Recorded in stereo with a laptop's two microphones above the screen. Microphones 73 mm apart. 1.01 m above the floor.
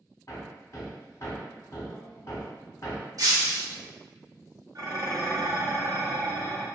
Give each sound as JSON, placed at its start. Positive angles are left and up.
{"t": 0.3, "sound": "hammering", "side_deg": 45, "distance_m": 0.8}
{"t": 3.2, "sound": "breaking glass", "side_deg": -55, "distance_m": 0.9}
{"t": 4.8, "sound": "dishes clattering", "side_deg": -50, "distance_m": 0.7}